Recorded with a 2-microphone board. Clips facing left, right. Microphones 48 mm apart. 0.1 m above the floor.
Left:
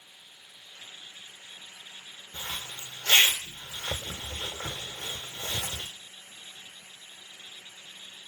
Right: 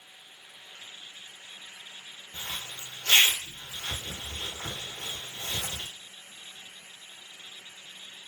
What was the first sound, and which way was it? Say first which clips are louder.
A zipper: left 1 dB; 65° left (ahead or behind).